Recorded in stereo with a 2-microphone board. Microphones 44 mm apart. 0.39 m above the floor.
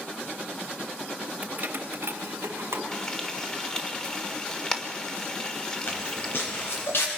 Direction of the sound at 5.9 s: 50° left (ahead or behind).